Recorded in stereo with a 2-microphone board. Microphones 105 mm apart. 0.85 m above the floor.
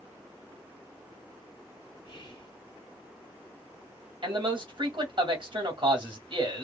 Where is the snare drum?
I don't hear a snare drum.